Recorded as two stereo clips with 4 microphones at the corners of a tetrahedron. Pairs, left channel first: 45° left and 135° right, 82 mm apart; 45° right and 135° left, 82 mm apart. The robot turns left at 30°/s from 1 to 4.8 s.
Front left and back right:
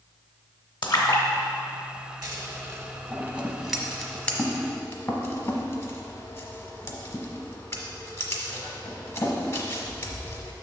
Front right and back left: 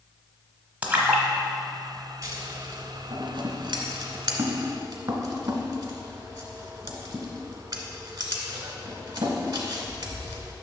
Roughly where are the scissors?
Behind.